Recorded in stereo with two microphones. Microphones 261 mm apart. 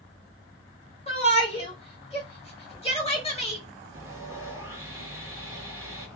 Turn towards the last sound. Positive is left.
turn(degrees=-10)  # may be behind; listen again after turning